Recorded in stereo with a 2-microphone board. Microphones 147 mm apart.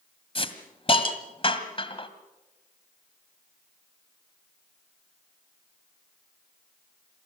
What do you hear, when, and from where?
0.3 s a hiss: 40° left (ahead or behind), 1.8 m